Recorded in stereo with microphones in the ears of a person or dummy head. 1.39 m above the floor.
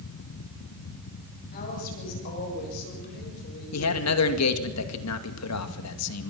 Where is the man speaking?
85° left, 2 m.